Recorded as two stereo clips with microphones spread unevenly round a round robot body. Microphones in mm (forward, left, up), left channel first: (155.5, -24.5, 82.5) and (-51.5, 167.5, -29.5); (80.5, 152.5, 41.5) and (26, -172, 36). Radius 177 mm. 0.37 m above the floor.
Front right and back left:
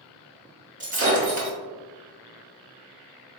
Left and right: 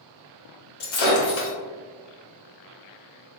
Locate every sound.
0.8 s breaking glass: 85° left, 1.7 m